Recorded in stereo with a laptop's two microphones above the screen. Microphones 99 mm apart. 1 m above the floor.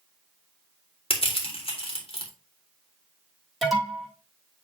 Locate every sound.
1.1 s crushing: 70° left (ahead or behind), 2.5 m
3.6 s an alarm: centre (ahead or behind), 1.3 m